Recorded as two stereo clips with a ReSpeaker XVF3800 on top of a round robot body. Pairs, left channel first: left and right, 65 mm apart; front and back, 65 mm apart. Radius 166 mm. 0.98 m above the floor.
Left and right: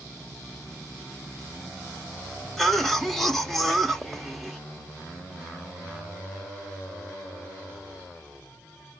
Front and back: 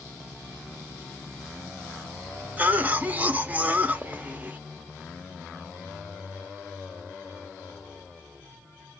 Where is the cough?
170° left, 0.9 m.